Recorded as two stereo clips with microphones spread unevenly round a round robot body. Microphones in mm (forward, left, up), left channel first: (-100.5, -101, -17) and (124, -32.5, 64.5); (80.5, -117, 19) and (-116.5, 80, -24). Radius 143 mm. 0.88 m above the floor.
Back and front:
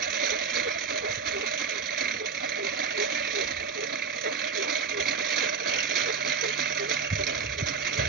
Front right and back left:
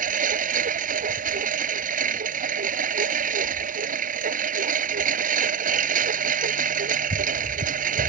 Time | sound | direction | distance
0.0 | a lawn mower | 70° left | ?